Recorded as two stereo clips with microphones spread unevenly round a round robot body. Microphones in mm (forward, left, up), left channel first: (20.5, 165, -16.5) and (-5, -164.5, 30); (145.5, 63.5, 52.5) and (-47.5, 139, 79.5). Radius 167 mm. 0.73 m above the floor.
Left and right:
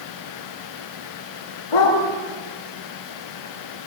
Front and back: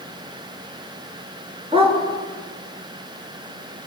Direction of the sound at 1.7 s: 95° left.